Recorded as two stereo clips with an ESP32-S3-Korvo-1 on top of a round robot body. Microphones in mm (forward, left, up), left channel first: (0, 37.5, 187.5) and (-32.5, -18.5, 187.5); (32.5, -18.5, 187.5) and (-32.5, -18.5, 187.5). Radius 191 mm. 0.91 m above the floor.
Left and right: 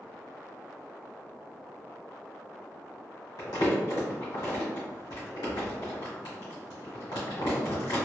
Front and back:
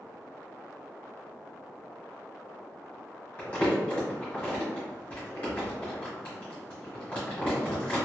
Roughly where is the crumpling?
Ahead left.